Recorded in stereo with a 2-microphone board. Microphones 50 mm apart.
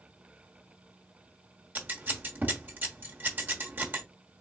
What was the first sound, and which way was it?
Scissors, 40° right (ahead or behind).